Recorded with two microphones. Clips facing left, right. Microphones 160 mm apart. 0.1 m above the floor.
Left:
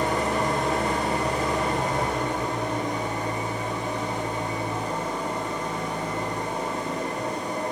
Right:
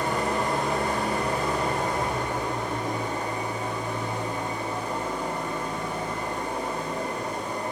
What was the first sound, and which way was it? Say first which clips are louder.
An engine running: left 2 dB; 20° left (ahead or behind).